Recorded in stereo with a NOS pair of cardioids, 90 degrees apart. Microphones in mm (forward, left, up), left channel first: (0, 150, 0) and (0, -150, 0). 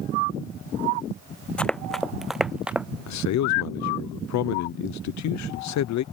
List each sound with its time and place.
1.6 s running footsteps: 5° left; by 2.9 s 5° right
3.1 s a man speaking: 70° left